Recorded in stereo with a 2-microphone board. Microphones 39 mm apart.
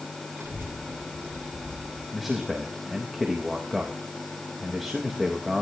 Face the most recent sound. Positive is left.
turn(degrees=0)  # may be behind; listen again after turning